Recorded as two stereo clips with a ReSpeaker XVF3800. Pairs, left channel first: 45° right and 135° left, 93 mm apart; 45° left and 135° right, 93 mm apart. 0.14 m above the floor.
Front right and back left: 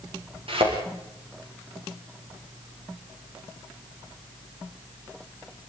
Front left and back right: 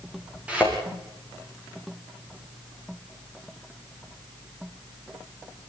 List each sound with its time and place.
0.5 s a thud: 150° left, 8 m